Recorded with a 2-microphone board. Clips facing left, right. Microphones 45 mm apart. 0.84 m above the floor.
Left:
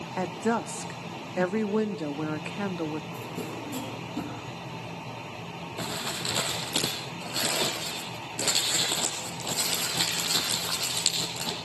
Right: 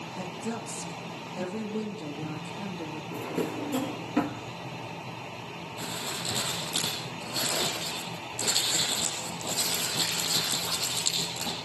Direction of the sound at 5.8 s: 85° left.